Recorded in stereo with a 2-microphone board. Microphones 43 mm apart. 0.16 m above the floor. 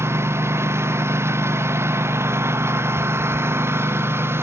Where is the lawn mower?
85° right; by 4.4 s 70° right (ahead or behind).